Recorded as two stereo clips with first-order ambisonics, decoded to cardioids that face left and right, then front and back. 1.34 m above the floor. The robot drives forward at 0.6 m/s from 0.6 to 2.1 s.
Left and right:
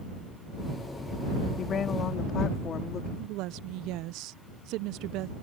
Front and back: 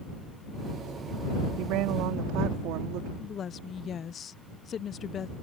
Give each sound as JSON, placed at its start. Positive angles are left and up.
{"t": 1.6, "sound": "a woman speaking", "azimuth_deg": 150}
{"t": 3.2, "sound": "a woman speaking", "azimuth_deg": -60}